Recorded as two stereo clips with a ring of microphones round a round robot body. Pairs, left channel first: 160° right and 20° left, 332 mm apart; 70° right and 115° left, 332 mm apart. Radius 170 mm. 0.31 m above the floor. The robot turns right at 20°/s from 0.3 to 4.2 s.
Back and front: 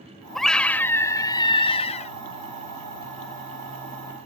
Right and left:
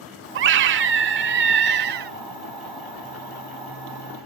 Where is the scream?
115° left; by 2.1 s 150° left.